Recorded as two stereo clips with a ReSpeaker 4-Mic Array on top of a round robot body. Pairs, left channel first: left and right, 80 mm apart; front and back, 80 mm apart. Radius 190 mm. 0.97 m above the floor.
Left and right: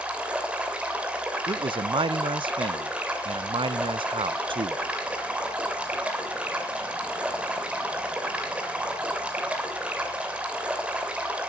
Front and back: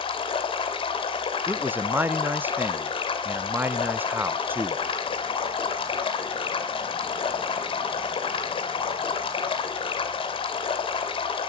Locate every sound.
0.0 s running water: 15° right, 2.5 m
1.5 s a man speaking: 110° right, 0.6 m